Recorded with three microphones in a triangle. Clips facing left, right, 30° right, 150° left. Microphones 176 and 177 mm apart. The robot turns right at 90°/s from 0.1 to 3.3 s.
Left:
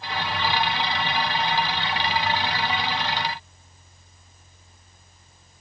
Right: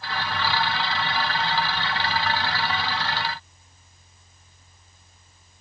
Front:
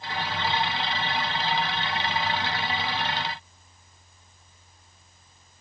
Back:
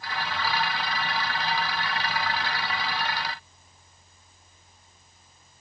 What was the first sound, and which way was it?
Only background noise.